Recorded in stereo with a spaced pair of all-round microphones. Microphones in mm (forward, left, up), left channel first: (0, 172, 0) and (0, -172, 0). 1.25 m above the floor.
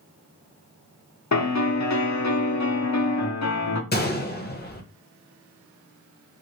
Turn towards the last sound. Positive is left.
turn(degrees=30)  # may be behind; listen again after turning